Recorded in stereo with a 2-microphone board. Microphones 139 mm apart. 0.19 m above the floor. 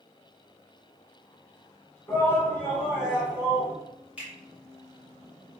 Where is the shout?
20° left (ahead or behind), 1.4 m; by 3.7 s 25° right (ahead or behind), 1.2 m.